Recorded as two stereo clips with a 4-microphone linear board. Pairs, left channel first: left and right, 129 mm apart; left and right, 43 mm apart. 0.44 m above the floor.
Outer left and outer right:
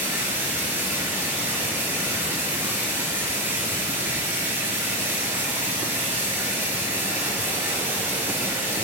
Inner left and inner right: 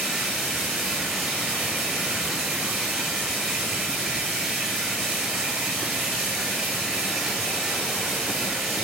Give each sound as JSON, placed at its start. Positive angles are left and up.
{"t": 0.0, "sound": "running water", "side_deg": -15, "distance_m": 5.0}